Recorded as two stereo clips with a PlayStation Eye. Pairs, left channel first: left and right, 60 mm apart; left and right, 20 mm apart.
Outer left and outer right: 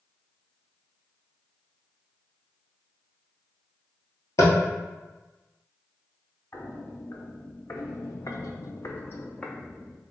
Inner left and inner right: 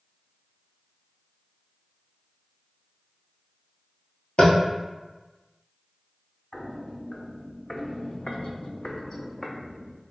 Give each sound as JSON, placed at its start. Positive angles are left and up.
{"t": 4.4, "sound": "tapping", "side_deg": 60, "distance_m": 0.9}
{"t": 6.5, "sound": "footsteps", "side_deg": 40, "distance_m": 1.3}